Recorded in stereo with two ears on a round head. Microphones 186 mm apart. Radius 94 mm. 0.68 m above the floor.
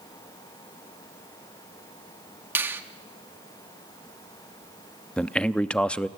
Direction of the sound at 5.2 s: 5° left (ahead or behind).